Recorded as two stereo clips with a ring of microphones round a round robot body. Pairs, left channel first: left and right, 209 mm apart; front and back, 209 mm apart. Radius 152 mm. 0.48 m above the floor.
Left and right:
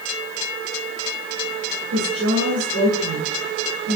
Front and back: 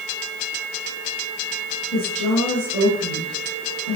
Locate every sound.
1.9 s a woman speaking: 85° right, 8 m